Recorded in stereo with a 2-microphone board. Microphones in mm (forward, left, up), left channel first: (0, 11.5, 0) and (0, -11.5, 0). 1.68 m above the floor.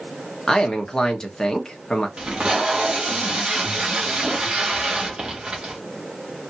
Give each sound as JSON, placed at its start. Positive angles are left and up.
{"t": 0.5, "sound": "a man speaking", "side_deg": 25, "distance_m": 1.2}
{"t": 2.2, "sound": "tape being pulled", "side_deg": -45, "distance_m": 1.5}